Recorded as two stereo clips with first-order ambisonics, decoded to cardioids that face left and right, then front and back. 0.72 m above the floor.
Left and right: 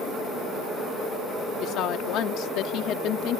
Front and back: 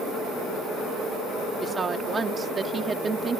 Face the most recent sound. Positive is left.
turn(degrees=110)